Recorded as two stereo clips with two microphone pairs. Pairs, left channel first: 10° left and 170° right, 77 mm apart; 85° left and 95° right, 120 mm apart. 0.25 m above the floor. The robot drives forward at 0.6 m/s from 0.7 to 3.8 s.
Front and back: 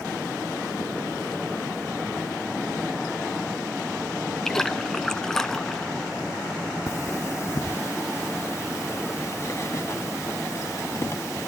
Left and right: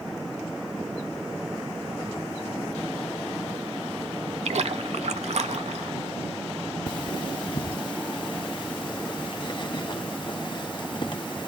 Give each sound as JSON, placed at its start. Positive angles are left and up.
{"t": 4.5, "sound": "a splash", "azimuth_deg": -70, "distance_m": 0.6}
{"t": 6.9, "sound": "cutlery clinking", "azimuth_deg": 55, "distance_m": 1.1}